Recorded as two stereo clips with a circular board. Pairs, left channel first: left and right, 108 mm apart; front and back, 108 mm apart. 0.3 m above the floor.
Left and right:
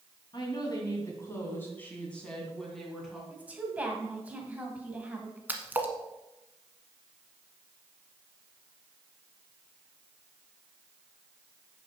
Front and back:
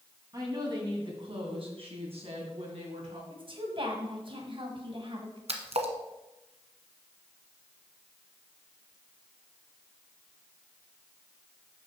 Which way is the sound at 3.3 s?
160° right.